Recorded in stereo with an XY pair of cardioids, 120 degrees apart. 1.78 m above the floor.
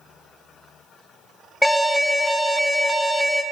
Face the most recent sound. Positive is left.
turn(degrees=5)